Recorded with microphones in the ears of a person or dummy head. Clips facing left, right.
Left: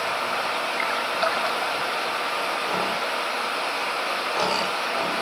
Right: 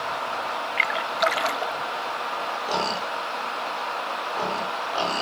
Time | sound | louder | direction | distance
0.8 | a splash | right 2 dB | 40° right (ahead or behind) | 0.7 m